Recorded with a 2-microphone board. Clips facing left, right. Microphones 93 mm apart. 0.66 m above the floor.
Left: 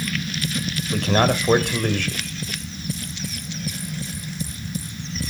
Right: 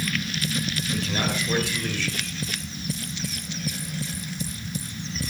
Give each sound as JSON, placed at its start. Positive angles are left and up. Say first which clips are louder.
{"t": 0.9, "sound": "a man speaking", "louder": "left 9 dB", "side_deg": 60, "distance_m": 2.0}